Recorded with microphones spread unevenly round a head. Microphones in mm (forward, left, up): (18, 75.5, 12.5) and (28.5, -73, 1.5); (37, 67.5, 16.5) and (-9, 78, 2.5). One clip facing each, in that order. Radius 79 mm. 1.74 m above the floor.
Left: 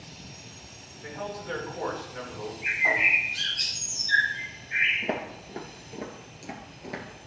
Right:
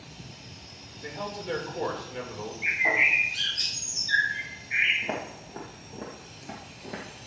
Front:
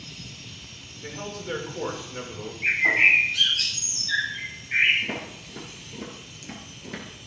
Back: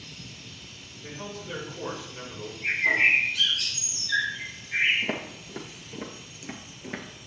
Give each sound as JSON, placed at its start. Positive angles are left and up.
{"t": 1.0, "sound": "a man speaking", "azimuth_deg": -25, "distance_m": 2.5}
{"t": 2.6, "sound": "a bird", "azimuth_deg": -20, "distance_m": 3.5}
{"t": 5.0, "sound": "footsteps", "azimuth_deg": 140, "distance_m": 2.0}